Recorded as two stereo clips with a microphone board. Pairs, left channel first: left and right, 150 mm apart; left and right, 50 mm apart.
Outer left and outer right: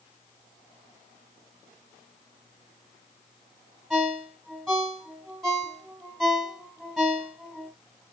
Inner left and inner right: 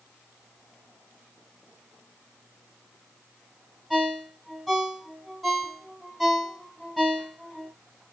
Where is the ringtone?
5° left (ahead or behind), 1.6 m.